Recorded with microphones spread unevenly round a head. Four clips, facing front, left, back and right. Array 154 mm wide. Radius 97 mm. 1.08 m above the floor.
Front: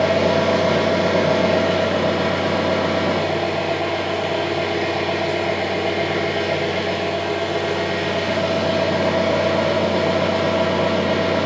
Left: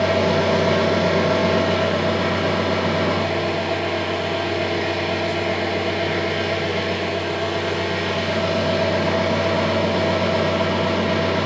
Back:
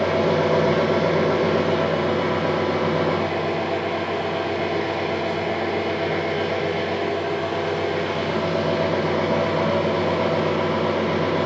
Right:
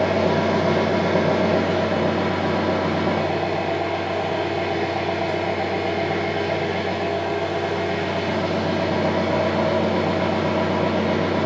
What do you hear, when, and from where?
0.0 s an engine running: 70° right, 1.7 m